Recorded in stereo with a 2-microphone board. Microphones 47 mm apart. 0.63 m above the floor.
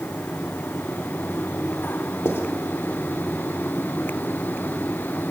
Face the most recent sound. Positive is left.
turn(degrees=70)  # may be behind; listen again after turning